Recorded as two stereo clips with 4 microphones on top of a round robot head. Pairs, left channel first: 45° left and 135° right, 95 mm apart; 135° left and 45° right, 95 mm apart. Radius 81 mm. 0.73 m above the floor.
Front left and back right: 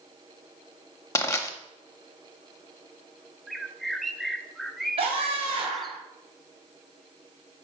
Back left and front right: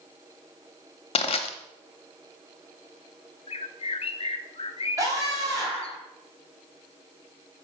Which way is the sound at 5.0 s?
105° right.